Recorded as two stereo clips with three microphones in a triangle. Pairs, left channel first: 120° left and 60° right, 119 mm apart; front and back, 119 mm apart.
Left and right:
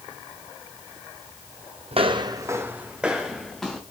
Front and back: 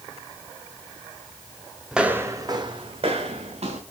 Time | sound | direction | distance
1.9 | footsteps | 95° right | 0.7 m